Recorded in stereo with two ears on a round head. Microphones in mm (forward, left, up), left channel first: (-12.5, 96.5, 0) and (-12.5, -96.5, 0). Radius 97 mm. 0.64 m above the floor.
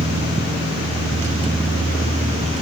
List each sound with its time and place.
Only background noise.